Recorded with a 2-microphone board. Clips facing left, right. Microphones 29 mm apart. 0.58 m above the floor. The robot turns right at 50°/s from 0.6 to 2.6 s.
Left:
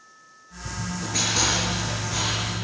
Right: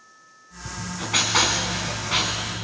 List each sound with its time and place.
0.7 s writing: 120° right, 5 m; by 2.5 s 25° right, 5 m